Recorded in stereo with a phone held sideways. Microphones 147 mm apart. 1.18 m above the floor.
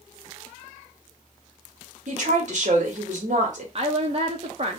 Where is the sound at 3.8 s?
40° right (ahead or behind), 0.6 m.